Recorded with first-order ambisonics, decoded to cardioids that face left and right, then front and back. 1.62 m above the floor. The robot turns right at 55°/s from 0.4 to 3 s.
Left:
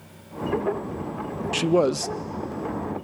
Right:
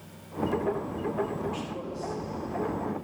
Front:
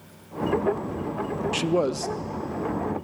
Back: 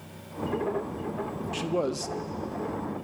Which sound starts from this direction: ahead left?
A man speaking, at 1.5 s.